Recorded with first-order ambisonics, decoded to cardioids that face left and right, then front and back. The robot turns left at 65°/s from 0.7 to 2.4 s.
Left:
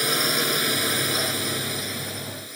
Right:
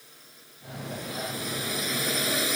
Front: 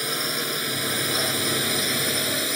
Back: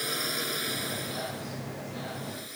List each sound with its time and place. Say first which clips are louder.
0.0 s a drone: left 30 dB, front 5 dB; 75° left; by 2.6 s 40° right